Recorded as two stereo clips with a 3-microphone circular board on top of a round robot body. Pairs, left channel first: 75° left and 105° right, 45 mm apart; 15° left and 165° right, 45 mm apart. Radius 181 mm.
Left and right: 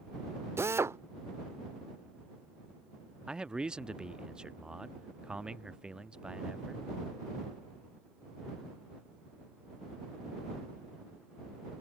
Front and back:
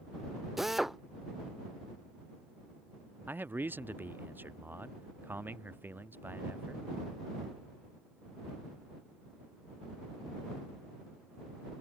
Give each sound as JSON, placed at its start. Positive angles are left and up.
{"t": 0.6, "sound": "a drill", "azimuth_deg": -80}
{"t": 3.3, "sound": "a man speaking", "azimuth_deg": -170}